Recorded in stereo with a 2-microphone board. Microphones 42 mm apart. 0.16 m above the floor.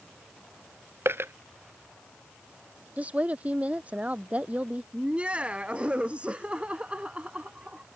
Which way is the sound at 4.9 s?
25° right (ahead or behind).